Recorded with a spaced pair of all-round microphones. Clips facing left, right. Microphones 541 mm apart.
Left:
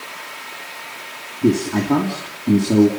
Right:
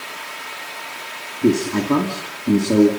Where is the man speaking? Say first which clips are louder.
Even; 5° left (ahead or behind), 3 m.